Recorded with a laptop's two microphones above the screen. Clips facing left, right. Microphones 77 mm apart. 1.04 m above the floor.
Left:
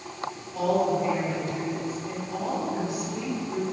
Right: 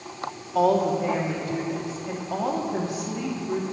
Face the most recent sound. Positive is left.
turn(degrees=-80)